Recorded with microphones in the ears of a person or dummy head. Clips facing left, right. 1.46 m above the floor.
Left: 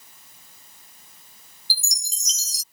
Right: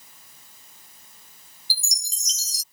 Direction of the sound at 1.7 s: 65° left (ahead or behind).